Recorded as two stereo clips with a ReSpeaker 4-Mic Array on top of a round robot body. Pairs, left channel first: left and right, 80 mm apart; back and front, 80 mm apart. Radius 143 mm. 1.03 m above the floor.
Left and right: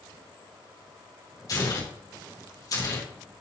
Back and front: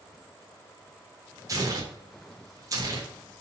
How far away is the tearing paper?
About 3.5 m.